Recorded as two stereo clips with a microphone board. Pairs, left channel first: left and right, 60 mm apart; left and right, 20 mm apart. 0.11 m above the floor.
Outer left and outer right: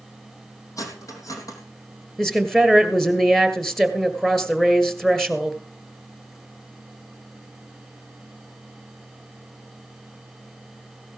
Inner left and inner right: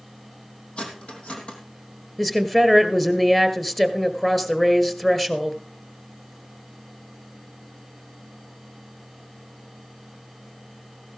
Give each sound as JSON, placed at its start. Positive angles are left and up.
{"t": 0.8, "sound": "cutlery clinking", "side_deg": 70, "distance_m": 3.0}
{"t": 2.2, "sound": "a woman speaking", "side_deg": 5, "distance_m": 1.9}